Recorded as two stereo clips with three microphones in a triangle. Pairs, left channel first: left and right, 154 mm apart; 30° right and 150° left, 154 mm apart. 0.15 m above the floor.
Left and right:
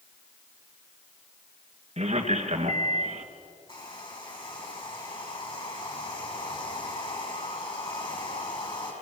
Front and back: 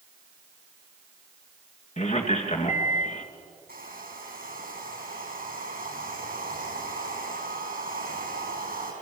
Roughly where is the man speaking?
Ahead right.